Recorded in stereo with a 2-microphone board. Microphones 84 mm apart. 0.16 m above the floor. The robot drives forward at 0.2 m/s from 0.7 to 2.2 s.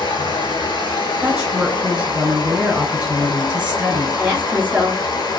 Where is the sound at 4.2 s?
20° right (ahead or behind), 1.8 m.